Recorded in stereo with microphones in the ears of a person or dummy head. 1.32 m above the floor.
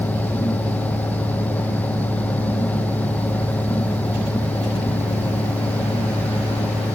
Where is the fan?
5° left (ahead or behind), 1.0 m.